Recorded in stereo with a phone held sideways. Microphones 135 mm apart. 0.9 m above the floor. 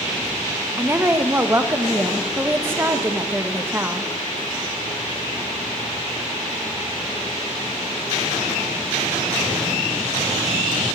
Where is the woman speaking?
15° right (ahead or behind), 0.9 m.